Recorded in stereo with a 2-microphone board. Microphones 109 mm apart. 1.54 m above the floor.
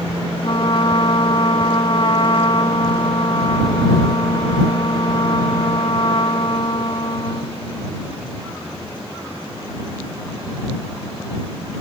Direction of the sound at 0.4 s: 55° left (ahead or behind).